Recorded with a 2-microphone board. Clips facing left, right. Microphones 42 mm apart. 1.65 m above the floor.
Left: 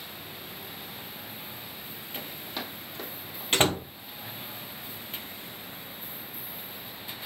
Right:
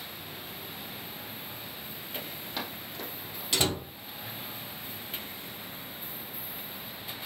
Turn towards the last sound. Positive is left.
turn(degrees=40)  # may be behind; listen again after turning